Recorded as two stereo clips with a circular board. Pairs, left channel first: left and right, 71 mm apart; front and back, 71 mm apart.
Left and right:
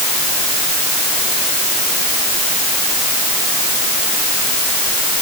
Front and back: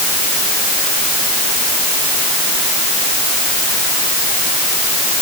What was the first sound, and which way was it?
Only background noise.